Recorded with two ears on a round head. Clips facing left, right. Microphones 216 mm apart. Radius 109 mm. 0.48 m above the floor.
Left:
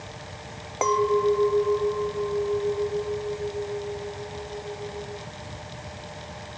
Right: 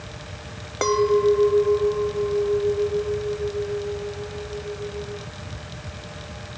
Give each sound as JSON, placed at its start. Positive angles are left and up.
{"t": 0.8, "sound": "a clink", "side_deg": -20}